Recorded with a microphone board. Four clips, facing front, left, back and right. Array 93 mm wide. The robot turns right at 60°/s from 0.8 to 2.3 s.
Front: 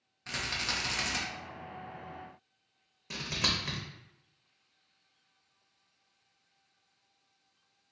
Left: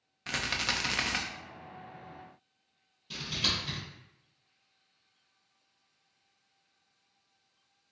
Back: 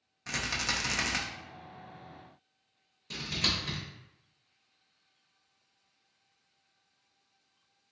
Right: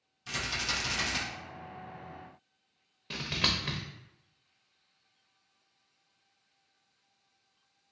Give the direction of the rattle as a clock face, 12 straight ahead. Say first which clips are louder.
Left 2 dB, back 2 dB; 9 o'clock.